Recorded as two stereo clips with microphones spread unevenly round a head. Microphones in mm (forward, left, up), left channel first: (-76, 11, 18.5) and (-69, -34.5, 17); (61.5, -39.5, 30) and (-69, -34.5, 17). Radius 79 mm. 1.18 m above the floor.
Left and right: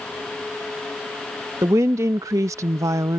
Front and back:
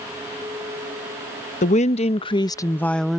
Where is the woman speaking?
30° right; by 3.2 s 95° right.